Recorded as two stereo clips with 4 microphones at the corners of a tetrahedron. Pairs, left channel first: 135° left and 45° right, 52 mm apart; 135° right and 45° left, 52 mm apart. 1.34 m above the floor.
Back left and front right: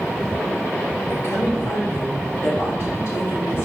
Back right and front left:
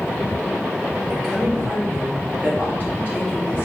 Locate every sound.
1.1 s a woman speaking: 145° left, 3.5 m; by 3.7 s straight behind, 4 m